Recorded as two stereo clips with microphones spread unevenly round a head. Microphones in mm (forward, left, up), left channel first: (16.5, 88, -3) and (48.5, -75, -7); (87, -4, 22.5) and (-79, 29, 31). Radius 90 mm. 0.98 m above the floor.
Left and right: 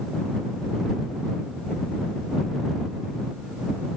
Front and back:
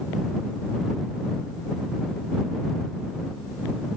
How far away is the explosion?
I don't hear an explosion.